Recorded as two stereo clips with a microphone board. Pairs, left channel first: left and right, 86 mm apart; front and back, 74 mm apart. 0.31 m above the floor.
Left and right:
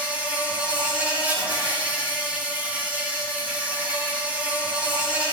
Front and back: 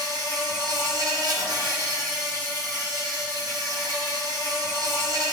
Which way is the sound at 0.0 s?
165° right.